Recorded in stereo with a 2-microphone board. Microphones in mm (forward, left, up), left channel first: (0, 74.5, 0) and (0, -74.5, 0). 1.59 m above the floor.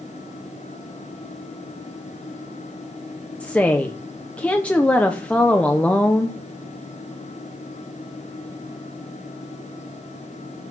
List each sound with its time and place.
3.4 s a woman speaking: 10° left (ahead or behind), 1.0 m